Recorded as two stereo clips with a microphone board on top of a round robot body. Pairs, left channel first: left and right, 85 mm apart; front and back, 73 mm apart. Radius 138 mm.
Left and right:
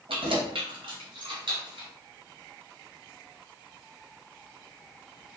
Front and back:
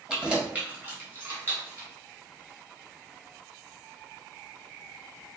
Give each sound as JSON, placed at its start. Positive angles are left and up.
{"t": 0.1, "sound": "keys jangling", "azimuth_deg": -100, "distance_m": 1.0}